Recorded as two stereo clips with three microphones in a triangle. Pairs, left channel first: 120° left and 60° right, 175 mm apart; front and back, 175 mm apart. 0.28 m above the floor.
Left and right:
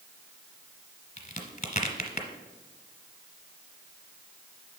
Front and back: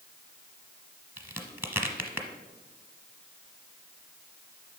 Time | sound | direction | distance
1.2 | a crack | 110° left | 1.0 m